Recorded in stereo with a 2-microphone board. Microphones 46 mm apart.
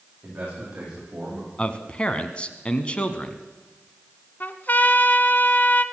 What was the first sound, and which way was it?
A man speaking, 30° right (ahead or behind).